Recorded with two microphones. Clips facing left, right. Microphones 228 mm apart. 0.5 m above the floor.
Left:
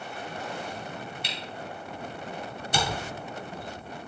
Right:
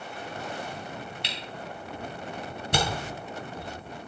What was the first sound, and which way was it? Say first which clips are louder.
A camera shutter: left 1 dB; 75° right (ahead or behind).